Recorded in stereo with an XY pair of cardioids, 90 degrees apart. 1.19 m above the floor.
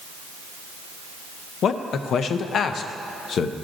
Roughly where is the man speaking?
Left.